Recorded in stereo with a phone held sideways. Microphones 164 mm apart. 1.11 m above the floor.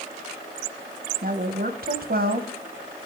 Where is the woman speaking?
65° right (ahead or behind), 0.9 m.